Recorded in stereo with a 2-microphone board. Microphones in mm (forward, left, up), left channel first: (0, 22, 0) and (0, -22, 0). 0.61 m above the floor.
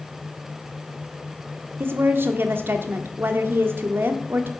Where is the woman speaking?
55° right (ahead or behind), 1.3 m.